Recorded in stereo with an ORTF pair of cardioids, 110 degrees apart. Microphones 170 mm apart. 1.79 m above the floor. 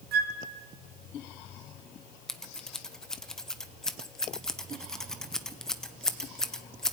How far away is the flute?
About 2 m.